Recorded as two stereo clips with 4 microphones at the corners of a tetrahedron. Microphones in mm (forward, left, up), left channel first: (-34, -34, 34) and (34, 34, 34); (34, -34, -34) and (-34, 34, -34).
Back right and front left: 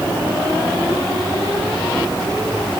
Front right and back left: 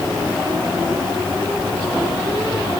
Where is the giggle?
I don't hear a giggle.